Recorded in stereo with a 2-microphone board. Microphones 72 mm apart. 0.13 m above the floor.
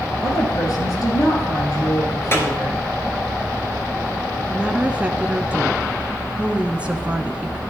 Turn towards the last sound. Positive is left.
turn(degrees=-15)  # may be behind; listen again after turning